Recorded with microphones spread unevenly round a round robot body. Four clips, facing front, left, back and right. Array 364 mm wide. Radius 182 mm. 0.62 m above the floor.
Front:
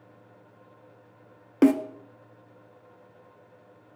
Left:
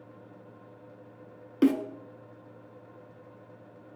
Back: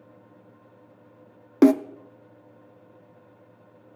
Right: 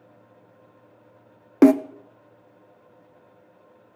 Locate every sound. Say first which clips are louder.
1.6 s a snare drum: right 9 dB, back 3 dB; 120° right, 0.6 m